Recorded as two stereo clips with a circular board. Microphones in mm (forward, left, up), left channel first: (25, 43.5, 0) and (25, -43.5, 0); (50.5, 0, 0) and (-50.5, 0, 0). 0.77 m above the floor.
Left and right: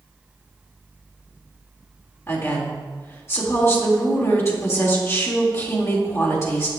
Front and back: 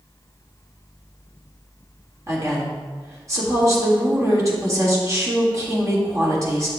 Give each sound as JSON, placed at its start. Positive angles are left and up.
{"t": 2.3, "sound": "a woman speaking", "azimuth_deg": 135, "distance_m": 1.5}